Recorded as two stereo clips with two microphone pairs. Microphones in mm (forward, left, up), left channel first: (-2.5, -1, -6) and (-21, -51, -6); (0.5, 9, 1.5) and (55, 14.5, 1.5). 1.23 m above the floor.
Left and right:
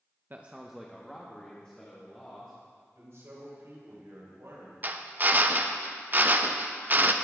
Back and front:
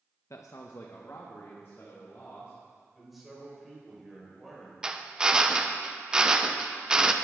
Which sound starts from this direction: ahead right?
A drill, at 4.8 s.